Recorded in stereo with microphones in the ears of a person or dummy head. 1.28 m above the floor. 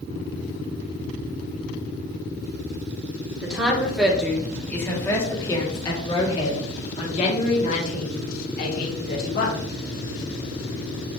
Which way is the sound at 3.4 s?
10° right (ahead or behind).